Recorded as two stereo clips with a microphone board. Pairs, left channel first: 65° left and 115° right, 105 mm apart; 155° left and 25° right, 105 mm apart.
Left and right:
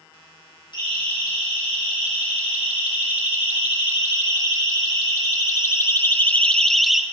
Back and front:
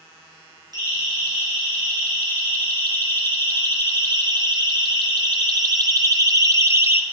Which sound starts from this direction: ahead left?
A siren, at 0.7 s.